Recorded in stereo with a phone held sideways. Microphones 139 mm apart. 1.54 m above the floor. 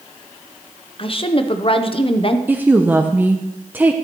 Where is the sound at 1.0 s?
40° left (ahead or behind), 0.7 m.